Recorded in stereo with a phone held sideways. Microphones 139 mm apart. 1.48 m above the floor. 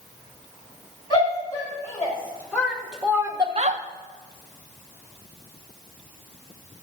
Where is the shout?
25° left (ahead or behind), 3.5 m; by 3.8 s 60° right (ahead or behind), 0.9 m.